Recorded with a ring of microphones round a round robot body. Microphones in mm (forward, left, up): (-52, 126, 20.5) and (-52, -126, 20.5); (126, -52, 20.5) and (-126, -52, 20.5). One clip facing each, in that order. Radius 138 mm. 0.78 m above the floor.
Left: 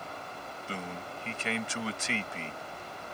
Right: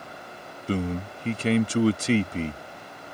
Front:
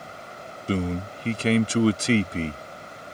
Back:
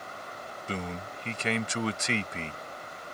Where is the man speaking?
45° right.